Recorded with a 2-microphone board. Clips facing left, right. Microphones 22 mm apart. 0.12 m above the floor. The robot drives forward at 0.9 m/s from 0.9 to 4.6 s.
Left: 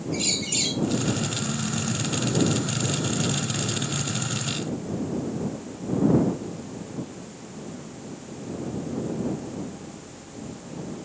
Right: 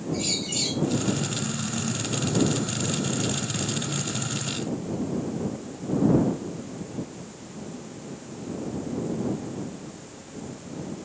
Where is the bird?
40° left (ahead or behind), 4.5 m.